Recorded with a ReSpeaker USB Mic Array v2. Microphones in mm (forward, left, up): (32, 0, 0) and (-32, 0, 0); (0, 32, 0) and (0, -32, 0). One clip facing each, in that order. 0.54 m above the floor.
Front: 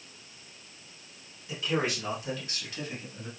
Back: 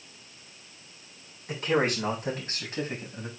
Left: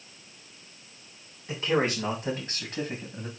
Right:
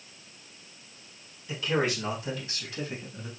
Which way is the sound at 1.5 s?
145° left.